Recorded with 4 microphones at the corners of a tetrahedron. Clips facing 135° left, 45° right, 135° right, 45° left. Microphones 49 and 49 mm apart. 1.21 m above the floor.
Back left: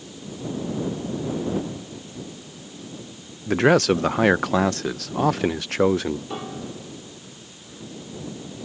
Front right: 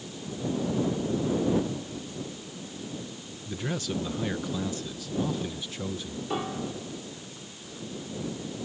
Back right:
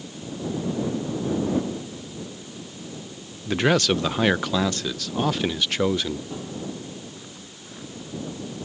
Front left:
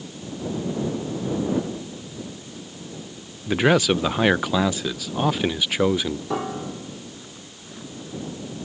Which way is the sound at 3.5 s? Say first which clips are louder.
Back left 16 dB, front left 2 dB; 125° left.